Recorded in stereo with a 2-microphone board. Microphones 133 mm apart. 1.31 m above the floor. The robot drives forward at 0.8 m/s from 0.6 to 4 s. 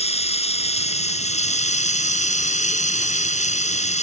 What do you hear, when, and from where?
0.0 s running water: 60° left (ahead or behind); by 4.0 s 65° left (ahead or behind)